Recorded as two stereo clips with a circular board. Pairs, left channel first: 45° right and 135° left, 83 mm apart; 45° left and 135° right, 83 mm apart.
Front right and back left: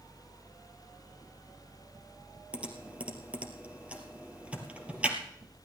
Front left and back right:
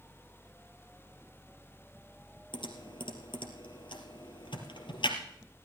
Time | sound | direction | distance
2.5 | typing on a keyboard | 60° left | 2 m